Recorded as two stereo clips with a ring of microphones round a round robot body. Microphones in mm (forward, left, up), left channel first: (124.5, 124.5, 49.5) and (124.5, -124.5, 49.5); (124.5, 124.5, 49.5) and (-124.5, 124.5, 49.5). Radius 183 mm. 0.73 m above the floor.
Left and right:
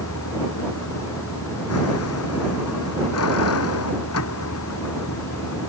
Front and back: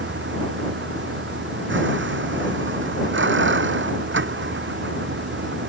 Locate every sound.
0.0 s a vehicle: 140° left